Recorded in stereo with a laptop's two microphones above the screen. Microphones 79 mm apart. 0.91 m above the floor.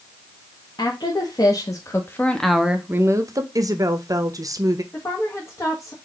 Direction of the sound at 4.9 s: 35° left (ahead or behind).